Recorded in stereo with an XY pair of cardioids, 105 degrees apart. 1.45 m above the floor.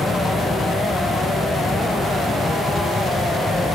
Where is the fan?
20° left.